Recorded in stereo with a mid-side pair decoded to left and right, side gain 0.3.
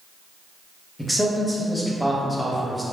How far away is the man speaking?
About 0.7 m.